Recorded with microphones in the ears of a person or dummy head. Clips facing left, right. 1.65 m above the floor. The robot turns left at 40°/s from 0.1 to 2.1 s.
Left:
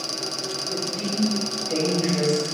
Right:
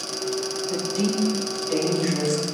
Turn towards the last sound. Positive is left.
turn(degrees=170)